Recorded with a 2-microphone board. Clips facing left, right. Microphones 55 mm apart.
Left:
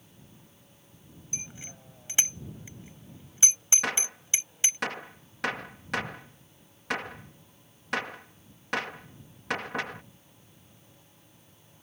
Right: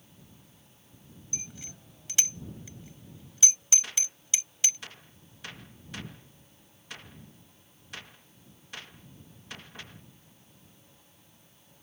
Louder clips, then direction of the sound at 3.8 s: Left 9 dB; 80° left.